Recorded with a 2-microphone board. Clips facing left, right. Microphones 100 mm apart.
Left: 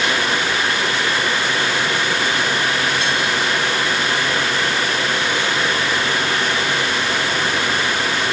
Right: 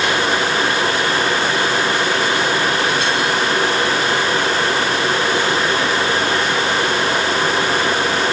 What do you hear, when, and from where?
Only background noise.